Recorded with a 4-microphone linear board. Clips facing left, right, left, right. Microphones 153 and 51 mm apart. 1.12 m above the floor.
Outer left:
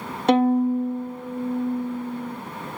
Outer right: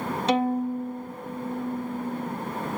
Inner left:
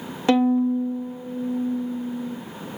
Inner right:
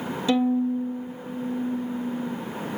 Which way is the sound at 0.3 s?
55° left (ahead or behind).